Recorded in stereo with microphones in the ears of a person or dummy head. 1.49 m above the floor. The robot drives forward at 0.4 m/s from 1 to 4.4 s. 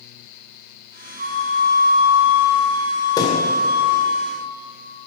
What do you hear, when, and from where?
1.2 s a flute: 45° right (ahead or behind), 0.9 m; by 4.2 s 20° right (ahead or behind), 1.9 m
3.2 s a thud: 25° left (ahead or behind), 2.5 m